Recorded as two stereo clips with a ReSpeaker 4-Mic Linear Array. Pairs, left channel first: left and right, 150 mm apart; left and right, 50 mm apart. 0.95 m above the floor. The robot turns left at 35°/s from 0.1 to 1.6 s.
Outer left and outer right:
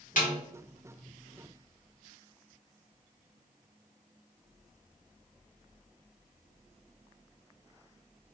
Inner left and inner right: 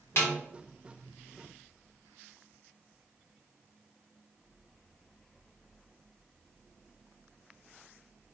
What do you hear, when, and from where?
0.2 s a snare drum: 65° left (ahead or behind), 1.4 m; by 0.3 s 70° left (ahead or behind), 1.4 m